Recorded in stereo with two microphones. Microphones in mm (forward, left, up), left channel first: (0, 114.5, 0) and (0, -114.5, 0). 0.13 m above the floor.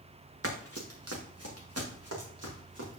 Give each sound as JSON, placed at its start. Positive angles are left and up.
{"t": 0.4, "sound": "running footsteps", "side_deg": -65, "distance_m": 1.3}